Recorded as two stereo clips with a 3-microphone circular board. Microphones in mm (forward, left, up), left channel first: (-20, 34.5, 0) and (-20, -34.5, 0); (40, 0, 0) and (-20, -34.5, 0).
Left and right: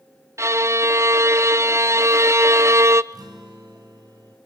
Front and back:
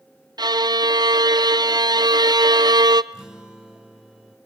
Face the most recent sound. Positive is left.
turn(degrees=-70)